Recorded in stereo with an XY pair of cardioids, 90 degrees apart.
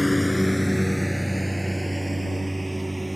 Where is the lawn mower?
15° left; by 3.2 s 10° right.